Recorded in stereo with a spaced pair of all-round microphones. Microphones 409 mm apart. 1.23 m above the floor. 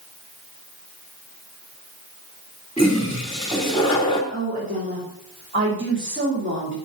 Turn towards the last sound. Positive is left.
turn(degrees=-30)  # may be behind; listen again after turning